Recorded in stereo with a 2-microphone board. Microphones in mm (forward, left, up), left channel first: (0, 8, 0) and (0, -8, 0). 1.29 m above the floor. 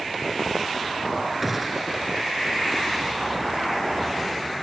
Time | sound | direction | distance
1.4 | a gunshot | 5° left (ahead or behind) | ?